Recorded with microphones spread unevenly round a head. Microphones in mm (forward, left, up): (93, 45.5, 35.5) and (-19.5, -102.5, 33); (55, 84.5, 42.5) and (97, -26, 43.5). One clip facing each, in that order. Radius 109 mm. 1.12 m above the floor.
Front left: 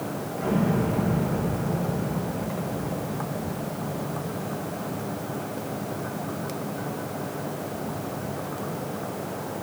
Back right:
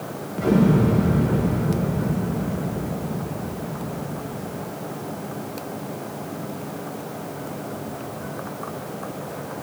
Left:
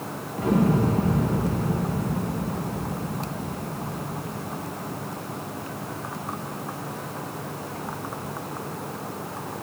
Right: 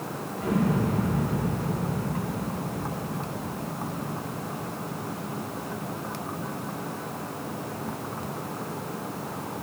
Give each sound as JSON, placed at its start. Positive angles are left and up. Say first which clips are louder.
{"t": 0.4, "sound": "an explosion", "louder": "back right 7 dB, left 4 dB", "azimuth_deg": 180, "distance_m": 0.8}